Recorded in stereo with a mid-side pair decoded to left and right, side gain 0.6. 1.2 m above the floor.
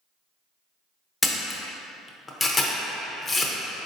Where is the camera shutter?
25° left, 0.6 m.